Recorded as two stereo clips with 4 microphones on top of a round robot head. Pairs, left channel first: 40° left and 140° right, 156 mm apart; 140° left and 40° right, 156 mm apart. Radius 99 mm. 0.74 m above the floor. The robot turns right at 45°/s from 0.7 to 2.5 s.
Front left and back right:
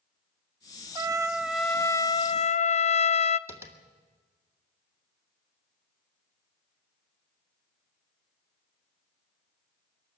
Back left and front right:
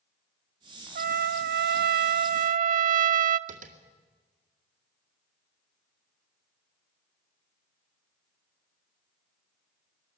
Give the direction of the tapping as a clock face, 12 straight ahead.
2 o'clock.